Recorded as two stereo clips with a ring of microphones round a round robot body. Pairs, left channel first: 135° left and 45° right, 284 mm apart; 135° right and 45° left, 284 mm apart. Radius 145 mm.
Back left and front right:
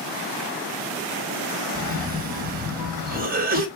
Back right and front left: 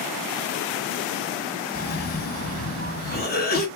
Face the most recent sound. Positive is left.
turn(degrees=-90)